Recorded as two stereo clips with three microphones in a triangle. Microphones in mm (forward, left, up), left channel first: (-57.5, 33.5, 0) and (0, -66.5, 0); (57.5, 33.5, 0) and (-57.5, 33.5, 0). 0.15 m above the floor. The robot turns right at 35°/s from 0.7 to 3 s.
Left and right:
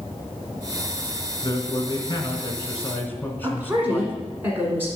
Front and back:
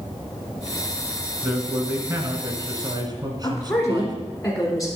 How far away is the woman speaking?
About 1.4 m.